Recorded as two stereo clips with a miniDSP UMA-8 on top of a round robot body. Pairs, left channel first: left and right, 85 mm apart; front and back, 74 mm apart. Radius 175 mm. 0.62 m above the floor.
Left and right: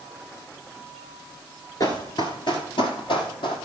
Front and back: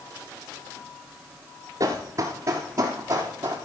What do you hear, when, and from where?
1.8 s running footsteps: 140° left, 0.6 m; by 3.5 s 120° left, 2 m